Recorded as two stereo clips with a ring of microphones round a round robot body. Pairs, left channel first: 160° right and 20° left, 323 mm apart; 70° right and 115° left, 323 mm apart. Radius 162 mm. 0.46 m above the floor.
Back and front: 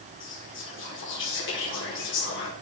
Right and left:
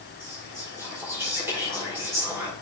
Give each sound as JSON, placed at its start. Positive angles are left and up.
{"t": 0.2, "sound": "whispering", "azimuth_deg": -170, "distance_m": 1.7}